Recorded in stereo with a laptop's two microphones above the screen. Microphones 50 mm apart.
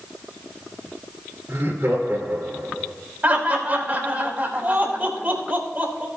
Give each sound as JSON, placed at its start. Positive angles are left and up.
{"t": 1.5, "sound": "laughter", "side_deg": -45, "distance_m": 2.5}
{"t": 3.2, "sound": "laughter", "side_deg": -30, "distance_m": 3.5}